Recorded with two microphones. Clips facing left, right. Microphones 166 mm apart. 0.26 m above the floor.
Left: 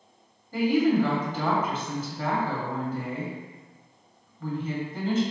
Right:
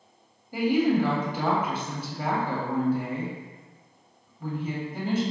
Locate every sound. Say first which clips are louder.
0.5 s a woman speaking: left 1 dB; 10° right (ahead or behind), 1.0 m